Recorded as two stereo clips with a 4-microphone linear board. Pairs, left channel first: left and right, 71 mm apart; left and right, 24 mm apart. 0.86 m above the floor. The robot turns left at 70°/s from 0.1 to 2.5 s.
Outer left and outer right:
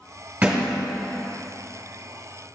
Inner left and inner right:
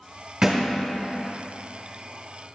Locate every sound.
0.4 s a thud: 20° right (ahead or behind), 1.5 m; by 0.7 s centre (ahead or behind), 1.5 m